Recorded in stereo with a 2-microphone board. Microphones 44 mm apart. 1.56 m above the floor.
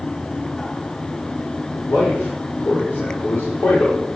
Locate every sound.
1.9 s a man speaking: 60° left (ahead or behind), 5 m